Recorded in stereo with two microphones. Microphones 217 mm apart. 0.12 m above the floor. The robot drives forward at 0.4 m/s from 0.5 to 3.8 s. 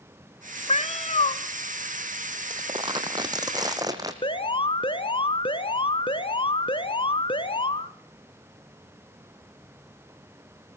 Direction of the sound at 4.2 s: 25° left (ahead or behind).